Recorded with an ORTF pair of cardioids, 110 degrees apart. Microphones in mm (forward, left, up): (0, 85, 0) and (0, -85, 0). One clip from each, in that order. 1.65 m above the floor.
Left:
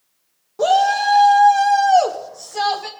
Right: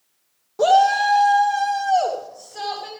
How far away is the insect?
No insect in this recording.